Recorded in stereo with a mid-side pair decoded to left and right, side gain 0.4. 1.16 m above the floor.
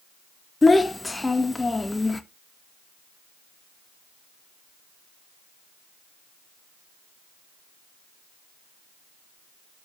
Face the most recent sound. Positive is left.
turn(degrees=20)